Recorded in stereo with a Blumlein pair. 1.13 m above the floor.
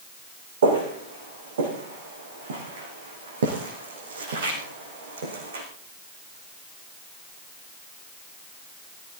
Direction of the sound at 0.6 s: 60° right.